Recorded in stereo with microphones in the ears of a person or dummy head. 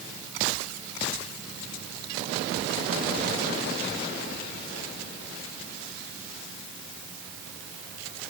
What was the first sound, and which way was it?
Only background noise.